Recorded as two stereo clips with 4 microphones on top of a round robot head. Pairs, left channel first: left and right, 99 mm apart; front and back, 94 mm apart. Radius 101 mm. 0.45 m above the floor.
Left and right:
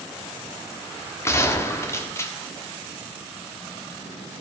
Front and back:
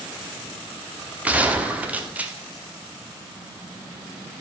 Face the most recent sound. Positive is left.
turn(degrees=120)